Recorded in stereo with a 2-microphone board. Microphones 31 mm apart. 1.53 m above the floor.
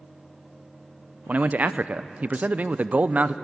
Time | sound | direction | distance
1.3 | a man speaking | 55° right (ahead or behind) | 0.6 m